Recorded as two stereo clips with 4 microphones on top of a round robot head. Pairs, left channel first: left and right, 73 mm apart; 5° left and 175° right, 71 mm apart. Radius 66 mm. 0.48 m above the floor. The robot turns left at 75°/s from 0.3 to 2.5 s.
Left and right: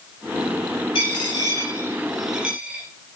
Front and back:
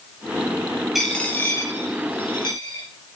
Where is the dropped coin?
100° left, 3.5 m; by 2.8 s 15° right, 3.5 m.